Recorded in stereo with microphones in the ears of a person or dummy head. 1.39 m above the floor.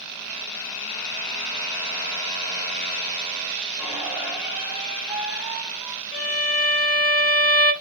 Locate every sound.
3.8 s a squeak: 5° right (ahead or behind), 1.7 m
6.1 s a violin: 35° left (ahead or behind), 1.2 m